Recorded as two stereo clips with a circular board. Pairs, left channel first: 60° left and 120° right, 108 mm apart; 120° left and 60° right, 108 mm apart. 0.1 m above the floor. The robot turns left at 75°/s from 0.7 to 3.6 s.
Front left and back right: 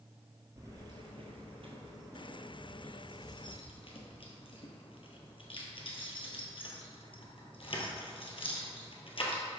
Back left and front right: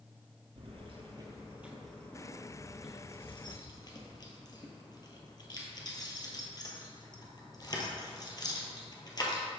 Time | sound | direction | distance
0.6 | keys jangling | 65° right | 1.7 m